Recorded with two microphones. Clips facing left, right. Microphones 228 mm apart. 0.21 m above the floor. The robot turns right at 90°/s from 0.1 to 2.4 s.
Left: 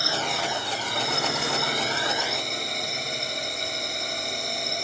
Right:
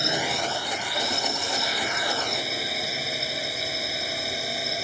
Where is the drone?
20° right; by 4.8 s 175° right.